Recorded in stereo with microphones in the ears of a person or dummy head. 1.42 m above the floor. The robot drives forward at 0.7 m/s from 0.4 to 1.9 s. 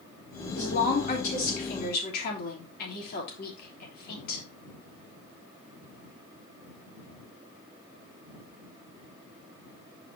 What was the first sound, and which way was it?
A woman speaking, 45° left (ahead or behind).